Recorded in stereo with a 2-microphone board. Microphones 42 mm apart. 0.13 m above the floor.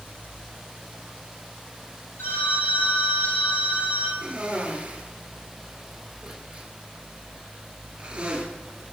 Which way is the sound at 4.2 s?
25° right (ahead or behind).